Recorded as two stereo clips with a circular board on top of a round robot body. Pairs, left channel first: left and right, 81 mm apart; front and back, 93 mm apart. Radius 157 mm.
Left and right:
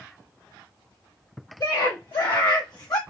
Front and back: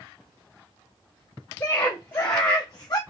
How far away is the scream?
About 1.7 m.